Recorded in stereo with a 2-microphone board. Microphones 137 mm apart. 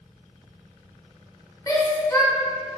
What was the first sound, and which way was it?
A shout, 25° left (ahead or behind).